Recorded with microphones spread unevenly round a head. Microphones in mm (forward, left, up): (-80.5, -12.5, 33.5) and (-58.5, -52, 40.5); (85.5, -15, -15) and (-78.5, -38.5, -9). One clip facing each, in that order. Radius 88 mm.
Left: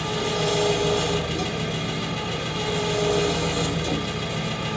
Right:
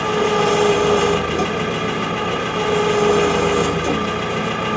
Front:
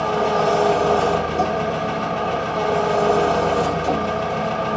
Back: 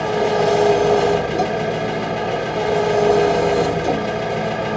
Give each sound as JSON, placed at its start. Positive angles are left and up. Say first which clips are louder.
{"t": 0.0, "sound": "an engine running", "louder": "right 8 dB, back 2 dB", "azimuth_deg": -100, "distance_m": 1.0}